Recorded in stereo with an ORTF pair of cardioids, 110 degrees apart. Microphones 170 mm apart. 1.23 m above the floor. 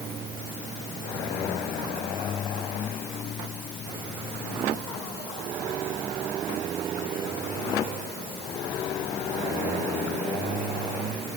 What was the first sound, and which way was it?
Only background noise.